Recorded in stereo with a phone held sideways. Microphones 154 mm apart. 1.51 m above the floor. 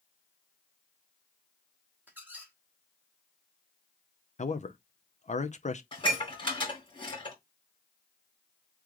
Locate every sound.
2.1 s a squeak: 10° right (ahead or behind), 1.2 m
4.4 s a man speaking: 50° left (ahead or behind), 0.6 m
5.9 s dishes clattering: 30° left (ahead or behind), 3 m